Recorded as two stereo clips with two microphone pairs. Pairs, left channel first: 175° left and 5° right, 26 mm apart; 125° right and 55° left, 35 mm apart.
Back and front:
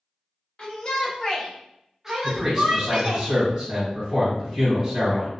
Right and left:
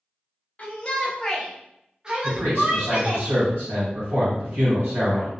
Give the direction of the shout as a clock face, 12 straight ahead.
5 o'clock.